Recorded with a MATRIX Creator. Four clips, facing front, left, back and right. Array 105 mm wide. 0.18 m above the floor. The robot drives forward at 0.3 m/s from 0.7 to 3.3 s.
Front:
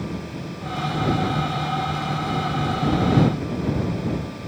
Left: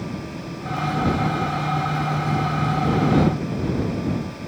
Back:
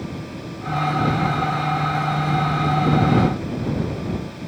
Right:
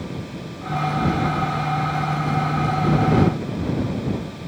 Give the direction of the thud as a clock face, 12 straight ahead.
I don't hear a thud.